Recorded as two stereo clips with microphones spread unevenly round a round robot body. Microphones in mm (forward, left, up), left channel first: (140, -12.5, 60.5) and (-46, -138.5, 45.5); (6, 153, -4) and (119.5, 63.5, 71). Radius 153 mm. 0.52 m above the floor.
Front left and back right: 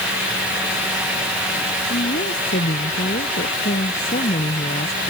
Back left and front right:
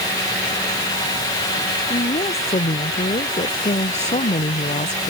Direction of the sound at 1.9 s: 95° left.